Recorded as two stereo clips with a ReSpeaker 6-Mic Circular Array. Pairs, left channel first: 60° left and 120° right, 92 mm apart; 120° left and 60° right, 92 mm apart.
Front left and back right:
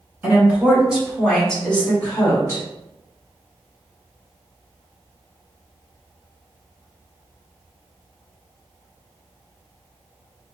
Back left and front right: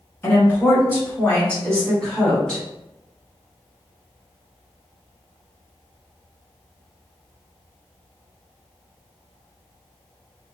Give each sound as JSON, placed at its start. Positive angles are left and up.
{"t": 0.2, "sound": "a woman speaking", "azimuth_deg": 180, "distance_m": 1.9}